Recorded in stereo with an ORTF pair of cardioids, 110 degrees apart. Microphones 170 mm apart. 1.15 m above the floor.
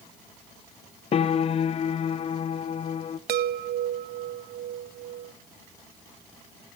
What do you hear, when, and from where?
1.1 s a piano: 35° left, 0.7 m
3.3 s a chime: 60° right, 0.8 m